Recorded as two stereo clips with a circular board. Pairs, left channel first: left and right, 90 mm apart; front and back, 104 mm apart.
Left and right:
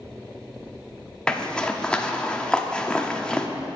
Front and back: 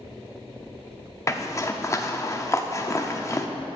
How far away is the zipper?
About 0.6 m.